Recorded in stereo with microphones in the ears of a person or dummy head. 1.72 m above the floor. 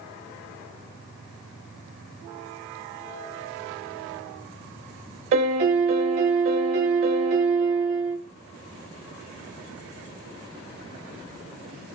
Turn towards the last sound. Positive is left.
turn(degrees=-35)  # may be behind; listen again after turning